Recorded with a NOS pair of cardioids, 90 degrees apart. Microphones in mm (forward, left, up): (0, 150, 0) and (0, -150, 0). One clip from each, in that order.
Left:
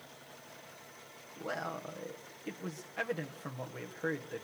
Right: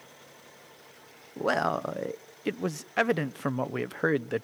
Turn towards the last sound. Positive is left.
turn(degrees=-70)